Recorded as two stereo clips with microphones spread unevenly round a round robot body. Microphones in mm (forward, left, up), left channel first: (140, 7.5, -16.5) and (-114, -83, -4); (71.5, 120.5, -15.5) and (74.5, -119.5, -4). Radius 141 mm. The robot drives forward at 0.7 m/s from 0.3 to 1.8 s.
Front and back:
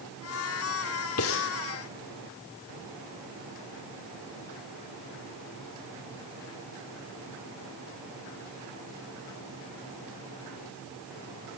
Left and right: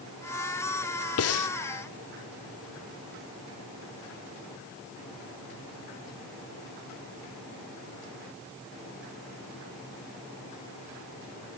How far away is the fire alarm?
No fire alarm in this recording.